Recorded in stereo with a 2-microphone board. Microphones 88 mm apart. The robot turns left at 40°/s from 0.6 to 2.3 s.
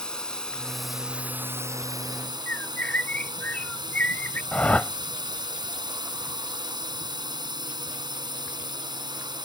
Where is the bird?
20° left (ahead or behind).